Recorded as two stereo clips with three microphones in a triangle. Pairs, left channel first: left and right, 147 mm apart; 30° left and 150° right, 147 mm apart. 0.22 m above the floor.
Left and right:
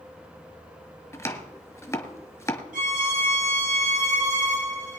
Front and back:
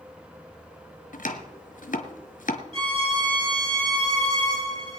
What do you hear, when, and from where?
1.1 s chopping: 25° left, 1.4 m
2.7 s a violin: 95° right, 3.5 m